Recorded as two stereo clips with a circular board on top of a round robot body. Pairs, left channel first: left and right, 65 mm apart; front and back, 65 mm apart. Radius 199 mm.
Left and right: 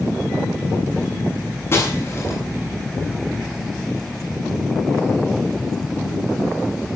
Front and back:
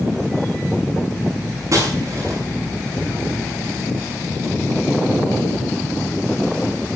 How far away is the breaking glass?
About 7 m.